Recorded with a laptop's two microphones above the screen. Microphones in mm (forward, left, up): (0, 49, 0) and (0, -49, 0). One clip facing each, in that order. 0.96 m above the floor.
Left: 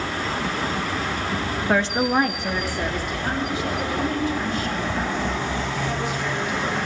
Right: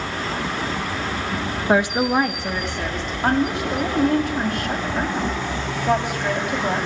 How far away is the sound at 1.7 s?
About 1.1 m.